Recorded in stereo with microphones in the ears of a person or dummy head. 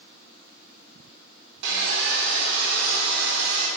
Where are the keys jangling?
No keys jangling in this recording.